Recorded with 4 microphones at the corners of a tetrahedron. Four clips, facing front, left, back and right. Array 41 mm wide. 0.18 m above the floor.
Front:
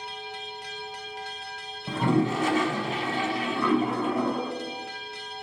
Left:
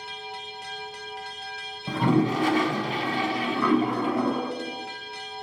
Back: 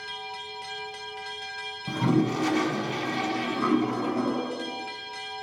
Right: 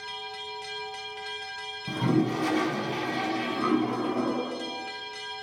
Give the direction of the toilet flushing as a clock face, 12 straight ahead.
10 o'clock.